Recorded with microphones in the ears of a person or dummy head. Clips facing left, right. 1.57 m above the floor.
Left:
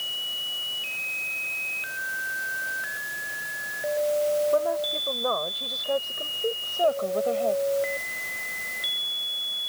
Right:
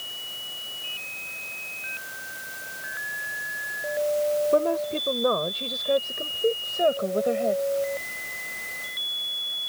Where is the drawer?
No drawer in this recording.